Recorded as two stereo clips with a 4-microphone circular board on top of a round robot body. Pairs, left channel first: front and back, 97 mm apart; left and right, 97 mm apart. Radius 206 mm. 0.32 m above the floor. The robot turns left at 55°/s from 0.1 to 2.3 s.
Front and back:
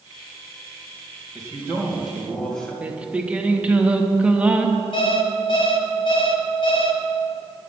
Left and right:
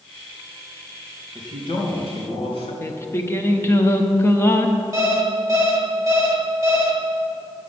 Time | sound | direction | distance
1.4 | a man speaking | 135° left | 3 m
2.8 | singing | 115° left | 1.2 m
4.9 | an alarm clock | 30° right | 1.3 m